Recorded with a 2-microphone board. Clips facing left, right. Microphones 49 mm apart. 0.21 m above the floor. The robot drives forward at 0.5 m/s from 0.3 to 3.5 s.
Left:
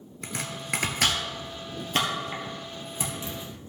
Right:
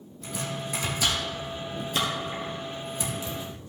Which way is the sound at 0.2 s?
70° left (ahead or behind).